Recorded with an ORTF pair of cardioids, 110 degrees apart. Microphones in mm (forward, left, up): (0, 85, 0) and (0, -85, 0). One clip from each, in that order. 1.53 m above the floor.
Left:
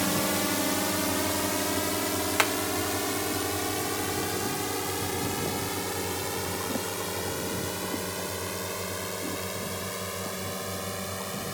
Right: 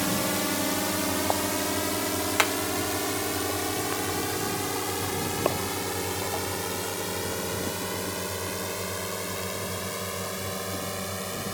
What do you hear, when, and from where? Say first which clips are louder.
0.0 s a drone: even; straight ahead; by 11.6 s 10° right
2.4 s hammering: right 1 dB; 10° right